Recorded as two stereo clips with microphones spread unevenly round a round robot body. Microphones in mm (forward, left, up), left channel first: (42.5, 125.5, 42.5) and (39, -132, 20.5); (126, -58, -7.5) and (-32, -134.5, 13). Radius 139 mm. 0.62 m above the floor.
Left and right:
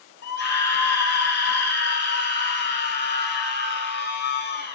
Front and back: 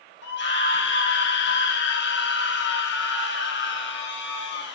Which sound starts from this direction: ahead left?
A scream, at 0.2 s.